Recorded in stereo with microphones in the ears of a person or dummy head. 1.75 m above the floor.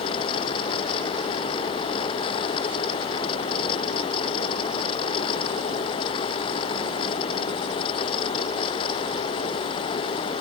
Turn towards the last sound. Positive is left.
No sound to turn to.